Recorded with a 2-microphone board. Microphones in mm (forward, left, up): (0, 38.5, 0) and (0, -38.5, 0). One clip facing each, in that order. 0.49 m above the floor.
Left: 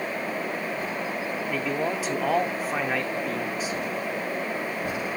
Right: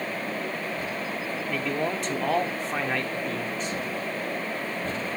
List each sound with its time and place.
1.5 s a man speaking: 5° left (ahead or behind), 1.0 m